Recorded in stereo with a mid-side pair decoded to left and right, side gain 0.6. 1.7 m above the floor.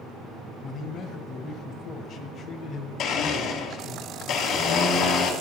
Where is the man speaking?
45° left, 0.7 m.